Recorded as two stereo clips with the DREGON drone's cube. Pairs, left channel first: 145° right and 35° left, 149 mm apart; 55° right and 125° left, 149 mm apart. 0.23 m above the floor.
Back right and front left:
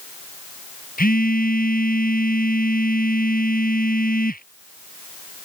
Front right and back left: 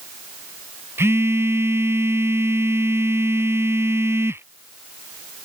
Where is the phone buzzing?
160° right.